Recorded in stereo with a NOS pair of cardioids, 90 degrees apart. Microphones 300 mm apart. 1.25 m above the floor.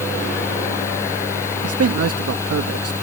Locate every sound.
0.0 s a fan: 10° left
1.6 s a man speaking: 50° right